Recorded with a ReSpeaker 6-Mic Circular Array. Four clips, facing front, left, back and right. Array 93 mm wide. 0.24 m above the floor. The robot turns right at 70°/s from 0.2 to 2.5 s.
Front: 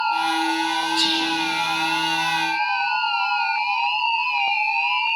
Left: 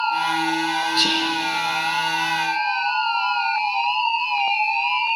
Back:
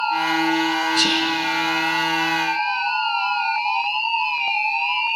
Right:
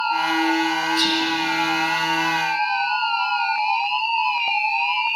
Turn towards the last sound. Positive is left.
turn(degrees=-115)